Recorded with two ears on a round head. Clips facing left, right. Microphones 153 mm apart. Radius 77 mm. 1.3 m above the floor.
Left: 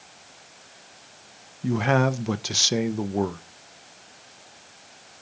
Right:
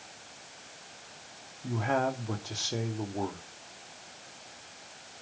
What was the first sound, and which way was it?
A man speaking, 85° left.